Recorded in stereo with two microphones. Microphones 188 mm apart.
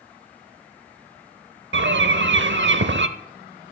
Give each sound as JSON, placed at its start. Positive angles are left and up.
{"t": 1.7, "sound": "a bird", "side_deg": -80, "distance_m": 0.7}